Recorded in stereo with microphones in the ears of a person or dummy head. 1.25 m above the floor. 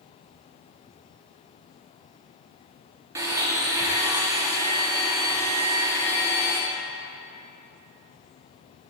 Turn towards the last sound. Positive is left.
turn(degrees=-20)  # may be behind; listen again after turning